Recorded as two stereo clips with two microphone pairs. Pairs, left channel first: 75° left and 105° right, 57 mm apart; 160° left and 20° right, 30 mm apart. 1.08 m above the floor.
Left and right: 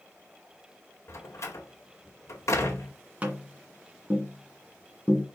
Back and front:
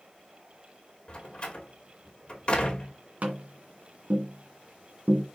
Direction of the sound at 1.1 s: 105° left.